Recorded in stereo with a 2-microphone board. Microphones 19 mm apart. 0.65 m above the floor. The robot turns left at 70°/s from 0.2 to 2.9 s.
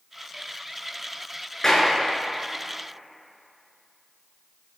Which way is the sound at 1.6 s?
25° left (ahead or behind).